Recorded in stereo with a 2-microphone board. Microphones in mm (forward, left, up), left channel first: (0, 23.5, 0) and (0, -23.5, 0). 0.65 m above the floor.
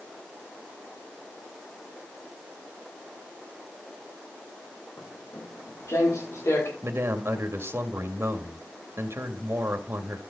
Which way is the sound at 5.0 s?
75° left (ahead or behind).